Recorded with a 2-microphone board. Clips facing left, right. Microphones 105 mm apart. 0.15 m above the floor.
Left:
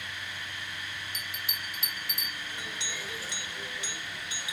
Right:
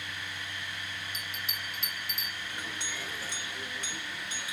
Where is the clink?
50° right (ahead or behind), 1.6 m.